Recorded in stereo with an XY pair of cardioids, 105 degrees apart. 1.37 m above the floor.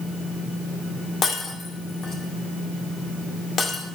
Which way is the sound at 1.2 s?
45° left.